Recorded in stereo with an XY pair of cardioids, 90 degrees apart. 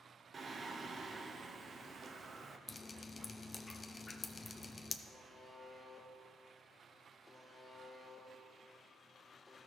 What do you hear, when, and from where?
0.3 s singing: 45° right, 0.6 m
2.7 s dripping: 35° left, 0.6 m
5.1 s a buzzer: 20° left, 1.2 m